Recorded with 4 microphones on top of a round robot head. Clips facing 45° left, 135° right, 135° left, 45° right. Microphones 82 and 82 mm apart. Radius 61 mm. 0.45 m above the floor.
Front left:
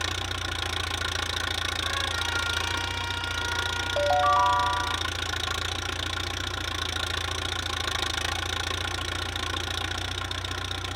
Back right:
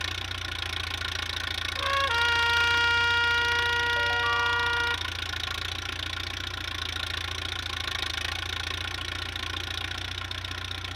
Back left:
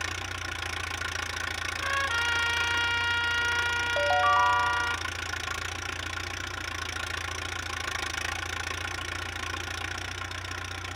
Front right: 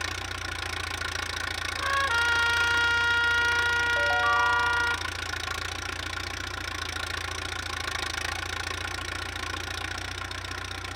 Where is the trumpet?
110° right, 1.1 m.